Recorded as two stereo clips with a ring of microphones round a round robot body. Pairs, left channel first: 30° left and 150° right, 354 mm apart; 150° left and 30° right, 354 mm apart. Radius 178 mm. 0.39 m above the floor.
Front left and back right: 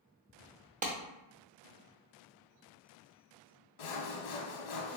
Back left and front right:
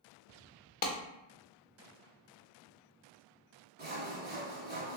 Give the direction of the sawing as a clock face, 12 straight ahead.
11 o'clock.